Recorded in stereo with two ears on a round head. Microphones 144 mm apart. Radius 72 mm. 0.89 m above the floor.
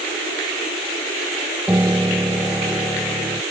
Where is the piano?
10° right (ahead or behind).